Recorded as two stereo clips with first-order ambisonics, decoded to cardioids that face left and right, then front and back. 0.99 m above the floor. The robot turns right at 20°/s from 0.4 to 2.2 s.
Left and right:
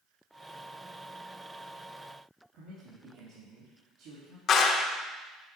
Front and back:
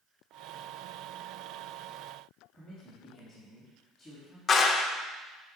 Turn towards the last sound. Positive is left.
turn(degrees=55)